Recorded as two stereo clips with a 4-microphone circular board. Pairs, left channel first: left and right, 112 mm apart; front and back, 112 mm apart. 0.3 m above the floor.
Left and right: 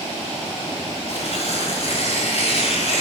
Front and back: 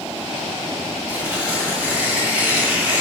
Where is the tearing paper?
100° left, 2.5 m.